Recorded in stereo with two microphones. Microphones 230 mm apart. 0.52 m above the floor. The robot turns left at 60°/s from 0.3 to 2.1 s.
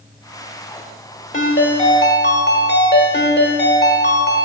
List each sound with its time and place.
1.3 s a ringtone: 100° left, 1.1 m; by 4.5 s 55° left, 1.1 m